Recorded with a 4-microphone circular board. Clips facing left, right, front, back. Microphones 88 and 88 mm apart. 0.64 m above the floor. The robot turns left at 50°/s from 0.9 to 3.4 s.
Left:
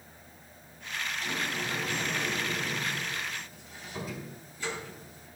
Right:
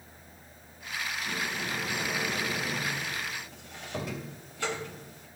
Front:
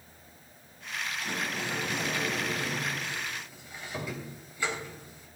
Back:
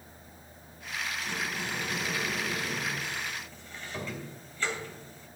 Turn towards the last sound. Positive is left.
turn(degrees=-75)